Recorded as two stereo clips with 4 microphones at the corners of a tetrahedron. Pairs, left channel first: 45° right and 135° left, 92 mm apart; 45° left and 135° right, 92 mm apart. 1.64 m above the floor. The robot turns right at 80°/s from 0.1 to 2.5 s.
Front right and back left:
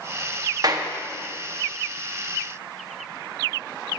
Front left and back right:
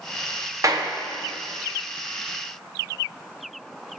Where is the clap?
175° left, 1.0 m; by 0.9 s 160° right, 1.0 m.